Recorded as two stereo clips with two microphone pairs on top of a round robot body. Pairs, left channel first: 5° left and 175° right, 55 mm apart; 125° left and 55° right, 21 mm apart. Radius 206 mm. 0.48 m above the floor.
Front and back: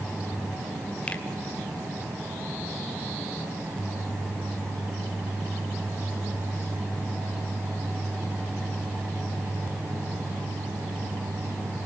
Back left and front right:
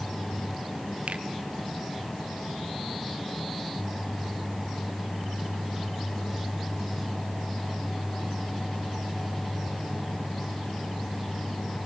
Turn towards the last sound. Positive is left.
turn(degrees=-60)